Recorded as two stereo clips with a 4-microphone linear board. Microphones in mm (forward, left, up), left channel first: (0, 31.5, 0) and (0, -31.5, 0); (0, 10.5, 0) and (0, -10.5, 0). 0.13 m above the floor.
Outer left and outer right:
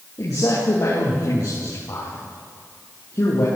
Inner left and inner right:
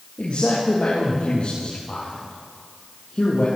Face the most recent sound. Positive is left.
turn(degrees=60)  # may be behind; listen again after turning